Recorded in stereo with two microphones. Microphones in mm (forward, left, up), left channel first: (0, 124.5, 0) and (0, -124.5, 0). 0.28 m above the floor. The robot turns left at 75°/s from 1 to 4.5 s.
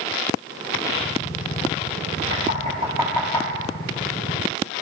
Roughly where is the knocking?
Right.